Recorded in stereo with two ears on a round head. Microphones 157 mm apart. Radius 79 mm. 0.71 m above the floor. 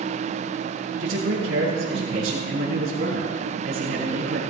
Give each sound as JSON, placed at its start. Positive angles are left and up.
{"t": 1.0, "sound": "a man speaking", "side_deg": -75, "distance_m": 4.5}